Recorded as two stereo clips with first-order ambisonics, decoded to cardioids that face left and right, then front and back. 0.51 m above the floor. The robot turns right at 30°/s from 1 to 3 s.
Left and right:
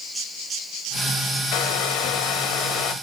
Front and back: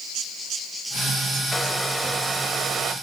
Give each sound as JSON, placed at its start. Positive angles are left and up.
{"t": 1.5, "sound": "a hair dryer", "azimuth_deg": 80, "distance_m": 1.1}